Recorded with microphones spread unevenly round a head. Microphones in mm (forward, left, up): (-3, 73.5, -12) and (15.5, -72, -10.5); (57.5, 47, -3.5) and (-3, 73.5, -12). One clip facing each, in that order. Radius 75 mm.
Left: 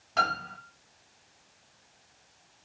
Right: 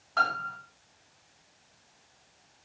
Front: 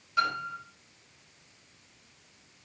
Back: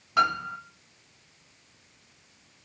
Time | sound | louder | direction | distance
0.2 | a piano | even, back 5 dB | 160° left | 3.5 m